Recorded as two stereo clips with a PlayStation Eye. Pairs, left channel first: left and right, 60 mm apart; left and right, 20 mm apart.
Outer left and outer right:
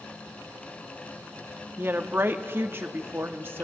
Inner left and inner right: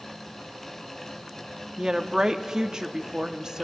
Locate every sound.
1.8 s a woman speaking: 35° right (ahead or behind), 0.6 m